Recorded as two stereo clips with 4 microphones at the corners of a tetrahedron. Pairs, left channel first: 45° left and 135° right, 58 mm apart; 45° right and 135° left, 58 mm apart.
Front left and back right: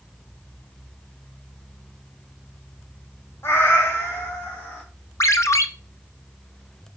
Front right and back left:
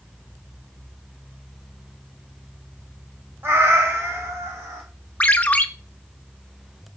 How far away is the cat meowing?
About 1.5 m.